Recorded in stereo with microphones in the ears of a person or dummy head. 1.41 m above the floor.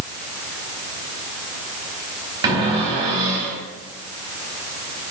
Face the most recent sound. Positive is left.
turn(degrees=-30)  # may be behind; listen again after turning